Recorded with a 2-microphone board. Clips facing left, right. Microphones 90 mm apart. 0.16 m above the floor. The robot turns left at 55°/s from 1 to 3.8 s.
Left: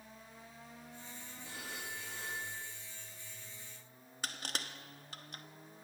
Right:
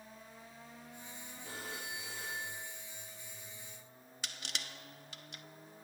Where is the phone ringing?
135° right, 8 m; by 2.8 s 155° left, 8 m.